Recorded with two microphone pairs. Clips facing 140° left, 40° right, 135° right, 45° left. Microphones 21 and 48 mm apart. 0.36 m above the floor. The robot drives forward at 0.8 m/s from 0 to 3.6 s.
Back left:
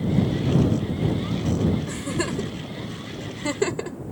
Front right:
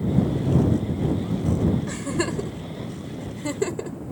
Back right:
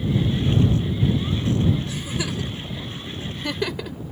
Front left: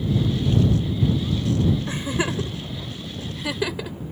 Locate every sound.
1.9 s a giggle: 30° left; by 4.0 s 125° left